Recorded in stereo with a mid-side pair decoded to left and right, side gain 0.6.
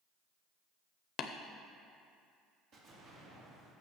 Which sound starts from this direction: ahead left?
Tapping, at 1.2 s.